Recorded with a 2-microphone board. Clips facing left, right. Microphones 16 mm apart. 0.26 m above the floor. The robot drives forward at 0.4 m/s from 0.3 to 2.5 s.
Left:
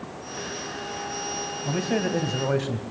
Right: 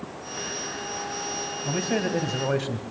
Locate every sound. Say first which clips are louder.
1.6 s a man speaking: even; 5° right (ahead or behind), 1.7 m